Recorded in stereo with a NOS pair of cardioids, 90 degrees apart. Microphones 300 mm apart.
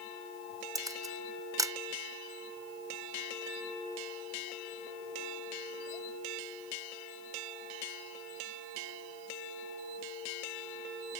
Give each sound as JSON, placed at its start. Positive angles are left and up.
{"t": 0.8, "sound": "a camera shutter", "azimuth_deg": -10}